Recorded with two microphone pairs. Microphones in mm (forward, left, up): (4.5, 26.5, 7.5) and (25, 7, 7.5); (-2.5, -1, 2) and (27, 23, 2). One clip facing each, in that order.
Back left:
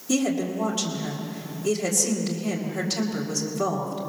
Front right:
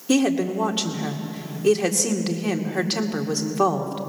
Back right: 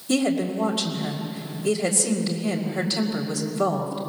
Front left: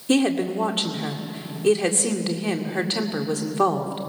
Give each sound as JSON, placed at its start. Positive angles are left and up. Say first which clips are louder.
{"t": 0.1, "sound": "a woman speaking", "louder": "front right 4 dB, front left 2 dB", "azimuth_deg": 0, "distance_m": 2.0}